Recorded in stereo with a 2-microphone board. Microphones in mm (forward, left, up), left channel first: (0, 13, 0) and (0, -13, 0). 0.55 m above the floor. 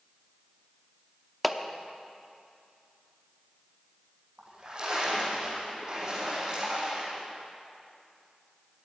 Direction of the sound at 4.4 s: 35° right (ahead or behind).